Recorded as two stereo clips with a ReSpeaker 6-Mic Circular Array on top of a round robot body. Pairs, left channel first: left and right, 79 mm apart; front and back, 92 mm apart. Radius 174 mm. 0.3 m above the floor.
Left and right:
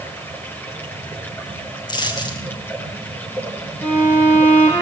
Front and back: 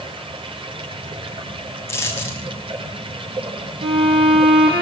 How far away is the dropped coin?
About 7 m.